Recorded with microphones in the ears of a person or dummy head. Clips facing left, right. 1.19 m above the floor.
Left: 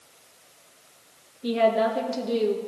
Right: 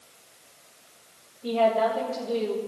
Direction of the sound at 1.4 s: 20° left (ahead or behind).